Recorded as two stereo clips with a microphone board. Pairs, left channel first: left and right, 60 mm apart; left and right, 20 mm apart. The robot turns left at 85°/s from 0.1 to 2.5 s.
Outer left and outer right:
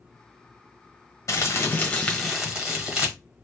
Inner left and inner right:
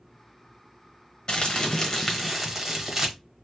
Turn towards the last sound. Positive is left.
turn(degrees=-20)